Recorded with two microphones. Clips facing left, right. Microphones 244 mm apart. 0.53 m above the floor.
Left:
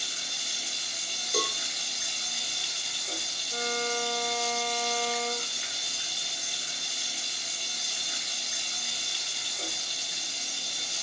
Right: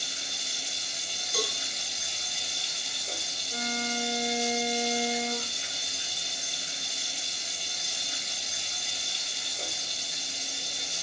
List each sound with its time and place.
0.0 s running water: 30° right (ahead or behind), 1.3 m
1.3 s a cowbell: 45° left (ahead or behind), 0.9 m
3.5 s a violin: 25° right (ahead or behind), 0.9 m